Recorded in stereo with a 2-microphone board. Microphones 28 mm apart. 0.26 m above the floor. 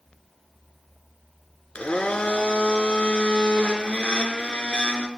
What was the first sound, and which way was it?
A blender, 50° left (ahead or behind).